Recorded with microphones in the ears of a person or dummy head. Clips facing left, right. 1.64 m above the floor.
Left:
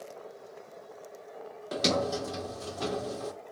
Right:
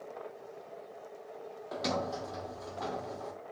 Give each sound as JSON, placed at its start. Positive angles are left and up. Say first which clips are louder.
{"t": 1.7, "sound": "a sliding door", "louder": "left 6 dB", "side_deg": 40, "distance_m": 0.8}